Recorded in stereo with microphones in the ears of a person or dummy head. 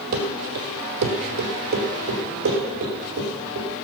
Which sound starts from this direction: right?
Running footsteps, at 0.1 s.